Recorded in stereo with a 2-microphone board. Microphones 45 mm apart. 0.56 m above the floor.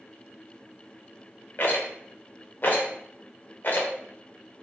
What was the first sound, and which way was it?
A rattle, 50° left (ahead or behind).